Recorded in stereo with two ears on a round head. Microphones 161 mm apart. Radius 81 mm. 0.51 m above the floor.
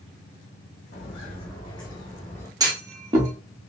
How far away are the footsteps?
About 1.5 m.